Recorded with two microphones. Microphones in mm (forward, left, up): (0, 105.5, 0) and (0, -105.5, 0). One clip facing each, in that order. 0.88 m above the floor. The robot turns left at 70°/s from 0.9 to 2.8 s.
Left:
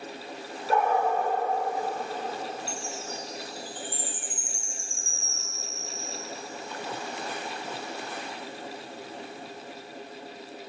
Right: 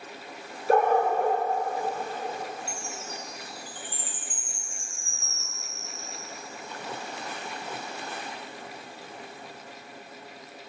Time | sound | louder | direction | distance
0.7 | a dog barking | right 3 dB | 50° right | 1.1 m
2.7 | a chime | left 2 dB | 20° left (ahead or behind) | 1.2 m